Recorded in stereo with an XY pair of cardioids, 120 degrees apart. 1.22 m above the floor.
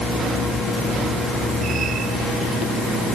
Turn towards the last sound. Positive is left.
No sound to turn to.